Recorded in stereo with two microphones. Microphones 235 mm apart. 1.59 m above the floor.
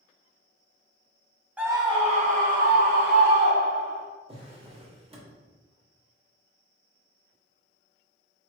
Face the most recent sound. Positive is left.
turn(degrees=-25)  # may be behind; listen again after turning